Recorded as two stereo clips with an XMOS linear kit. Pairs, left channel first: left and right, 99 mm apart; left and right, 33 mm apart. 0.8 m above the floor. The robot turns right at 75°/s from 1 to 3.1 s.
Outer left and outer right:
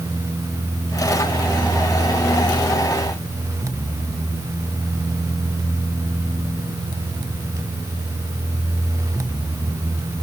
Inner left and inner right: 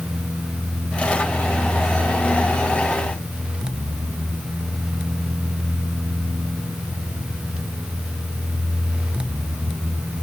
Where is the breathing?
I don't hear breathing.